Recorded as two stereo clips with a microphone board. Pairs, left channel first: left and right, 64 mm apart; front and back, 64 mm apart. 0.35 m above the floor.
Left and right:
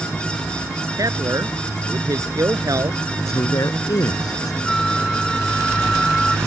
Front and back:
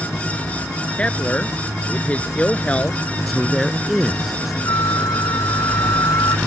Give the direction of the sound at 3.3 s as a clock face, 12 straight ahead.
9 o'clock.